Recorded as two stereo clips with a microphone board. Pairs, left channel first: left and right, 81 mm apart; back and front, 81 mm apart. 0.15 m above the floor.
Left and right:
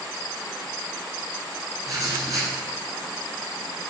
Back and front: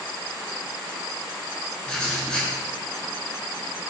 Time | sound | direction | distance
1.9 | writing | 100° right | 0.9 m